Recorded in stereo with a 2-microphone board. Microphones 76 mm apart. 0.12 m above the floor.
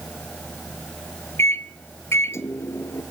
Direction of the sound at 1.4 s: 35° left (ahead or behind).